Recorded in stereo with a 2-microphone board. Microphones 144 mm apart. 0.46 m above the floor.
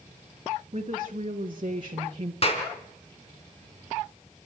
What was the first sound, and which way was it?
A woman speaking, 45° right (ahead or behind).